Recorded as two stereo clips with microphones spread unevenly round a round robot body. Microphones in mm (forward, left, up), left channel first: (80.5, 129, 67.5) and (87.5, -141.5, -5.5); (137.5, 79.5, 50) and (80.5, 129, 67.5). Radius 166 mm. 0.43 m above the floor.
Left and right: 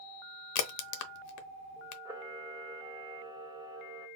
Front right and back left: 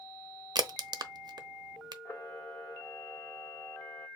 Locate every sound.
0.6 s a crack: 105° left, 0.5 m
2.0 s a camera shutter: 35° right, 0.9 m